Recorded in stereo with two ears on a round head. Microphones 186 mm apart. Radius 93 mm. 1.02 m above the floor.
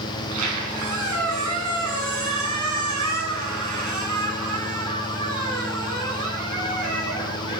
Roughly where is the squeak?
Right.